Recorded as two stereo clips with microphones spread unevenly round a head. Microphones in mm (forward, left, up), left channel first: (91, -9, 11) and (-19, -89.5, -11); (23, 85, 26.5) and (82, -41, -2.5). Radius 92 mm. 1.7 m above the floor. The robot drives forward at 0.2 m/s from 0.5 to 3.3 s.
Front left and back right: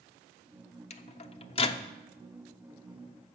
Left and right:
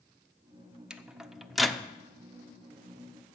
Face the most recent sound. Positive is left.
turn(degrees=90)